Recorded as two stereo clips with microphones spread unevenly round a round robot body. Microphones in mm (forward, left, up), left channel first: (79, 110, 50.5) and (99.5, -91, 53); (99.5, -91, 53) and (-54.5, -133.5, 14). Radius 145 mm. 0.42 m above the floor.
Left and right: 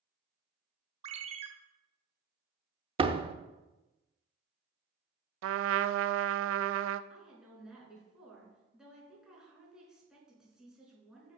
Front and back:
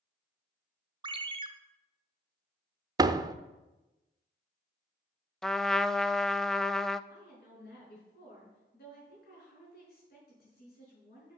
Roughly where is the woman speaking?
Ahead.